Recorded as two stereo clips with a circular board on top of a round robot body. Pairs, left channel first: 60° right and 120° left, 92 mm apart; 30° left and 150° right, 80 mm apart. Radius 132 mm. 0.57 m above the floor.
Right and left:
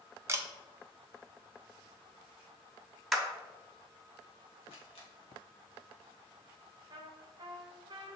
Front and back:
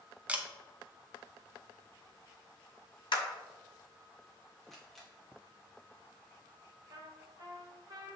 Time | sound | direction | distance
0.3 | a camera shutter | 150° left | 0.7 m
3.1 | a clap | 30° left | 0.8 m
4.6 | a camera shutter | 55° right | 1.3 m
6.9 | a trumpet | 165° left | 0.6 m